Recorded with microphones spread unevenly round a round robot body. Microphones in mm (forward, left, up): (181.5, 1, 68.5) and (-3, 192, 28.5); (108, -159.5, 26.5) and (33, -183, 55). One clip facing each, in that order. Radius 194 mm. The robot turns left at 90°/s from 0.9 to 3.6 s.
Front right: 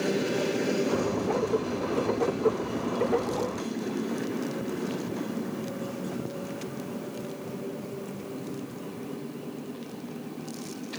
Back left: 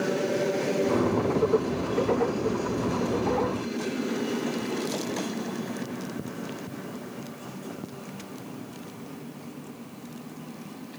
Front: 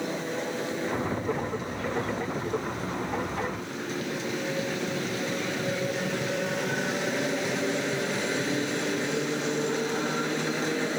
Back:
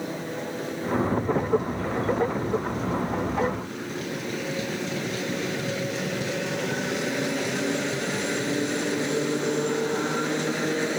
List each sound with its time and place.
Only background noise.